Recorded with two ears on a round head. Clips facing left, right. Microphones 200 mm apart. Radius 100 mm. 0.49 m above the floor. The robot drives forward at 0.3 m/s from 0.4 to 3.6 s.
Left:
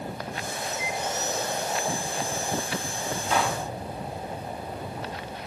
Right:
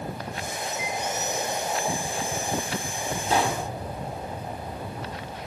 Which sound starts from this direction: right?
A pop, at 3.3 s.